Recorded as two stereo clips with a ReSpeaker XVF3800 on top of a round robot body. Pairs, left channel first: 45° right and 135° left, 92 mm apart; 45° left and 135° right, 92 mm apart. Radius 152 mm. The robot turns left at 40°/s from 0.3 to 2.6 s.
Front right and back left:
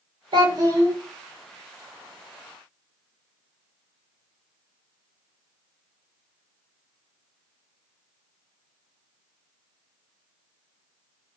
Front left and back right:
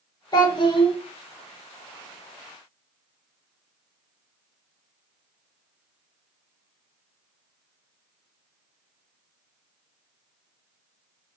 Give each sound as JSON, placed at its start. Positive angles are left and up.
{"t": 0.3, "sound": "a child speaking", "azimuth_deg": 95, "distance_m": 0.9}